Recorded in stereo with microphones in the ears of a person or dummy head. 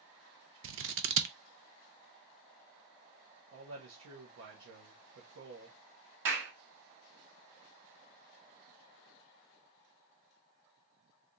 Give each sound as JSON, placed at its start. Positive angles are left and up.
{"t": 0.6, "sound": "scissors", "side_deg": -60, "distance_m": 0.5}
{"t": 3.5, "sound": "a man speaking", "side_deg": -75, "distance_m": 1.0}
{"t": 6.2, "sound": "a clap", "side_deg": -80, "distance_m": 2.0}